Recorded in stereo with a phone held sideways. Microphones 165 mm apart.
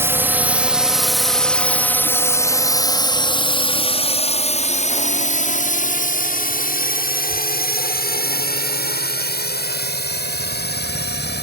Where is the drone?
15° right (ahead or behind); by 11.4 s 70° left (ahead or behind).